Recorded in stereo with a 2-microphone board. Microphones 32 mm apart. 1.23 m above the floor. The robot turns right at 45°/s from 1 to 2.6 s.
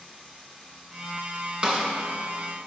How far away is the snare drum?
About 1.4 m.